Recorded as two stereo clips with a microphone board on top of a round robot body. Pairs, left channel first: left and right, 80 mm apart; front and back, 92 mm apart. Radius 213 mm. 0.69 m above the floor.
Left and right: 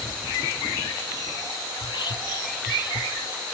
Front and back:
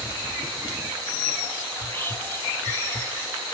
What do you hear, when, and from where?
1.8 s whispering: 65° left, 1.2 m